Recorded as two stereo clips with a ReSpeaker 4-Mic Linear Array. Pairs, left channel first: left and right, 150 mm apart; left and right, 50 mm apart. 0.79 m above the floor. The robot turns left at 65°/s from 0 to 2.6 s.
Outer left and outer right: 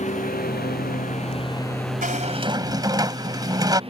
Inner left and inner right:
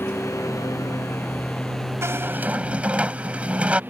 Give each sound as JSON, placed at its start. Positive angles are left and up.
{"t": 0.0, "sound": "a lawn mower", "azimuth_deg": 130}
{"t": 2.0, "sound": "a squeak", "azimuth_deg": -115}